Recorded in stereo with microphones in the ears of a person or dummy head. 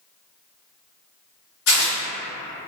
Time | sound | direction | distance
1.7 | tearing paper | 80° left | 1.1 m